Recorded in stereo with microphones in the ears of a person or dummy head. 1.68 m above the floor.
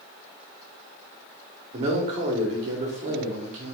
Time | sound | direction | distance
1.7 | a man speaking | 45° right (ahead or behind) | 1.1 m